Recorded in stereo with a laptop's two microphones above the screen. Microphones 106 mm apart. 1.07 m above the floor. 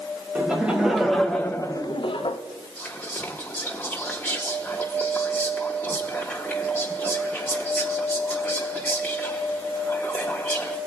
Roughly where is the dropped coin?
No dropped coin in this recording.